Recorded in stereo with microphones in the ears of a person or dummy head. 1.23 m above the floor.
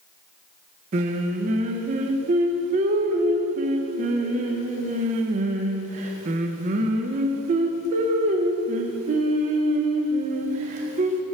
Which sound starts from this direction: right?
Singing, at 0.9 s.